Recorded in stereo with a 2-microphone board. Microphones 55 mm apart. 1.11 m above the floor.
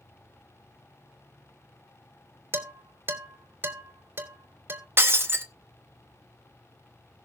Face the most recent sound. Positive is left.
turn(degrees=-45)  # may be behind; listen again after turning